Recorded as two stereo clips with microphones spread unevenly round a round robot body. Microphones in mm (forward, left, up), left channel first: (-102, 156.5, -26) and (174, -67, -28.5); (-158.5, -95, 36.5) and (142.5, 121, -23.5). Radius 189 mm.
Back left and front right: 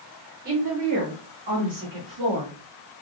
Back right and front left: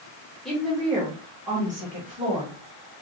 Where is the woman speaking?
35° right, 0.8 m; by 2.9 s 40° right, 2.5 m.